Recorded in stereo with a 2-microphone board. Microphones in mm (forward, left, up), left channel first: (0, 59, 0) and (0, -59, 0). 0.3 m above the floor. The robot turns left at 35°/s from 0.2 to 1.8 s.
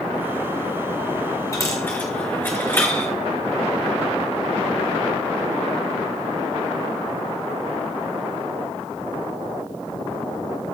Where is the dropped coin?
25° left (ahead or behind), 2 m; by 3.1 s 15° left (ahead or behind), 2 m.